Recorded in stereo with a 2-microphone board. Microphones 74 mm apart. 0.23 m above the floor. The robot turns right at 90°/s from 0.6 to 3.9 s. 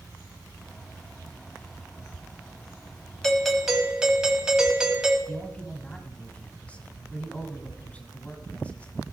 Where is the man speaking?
15° left (ahead or behind), 1.3 m.